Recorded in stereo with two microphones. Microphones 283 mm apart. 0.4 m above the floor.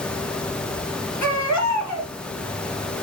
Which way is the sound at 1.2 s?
80° left.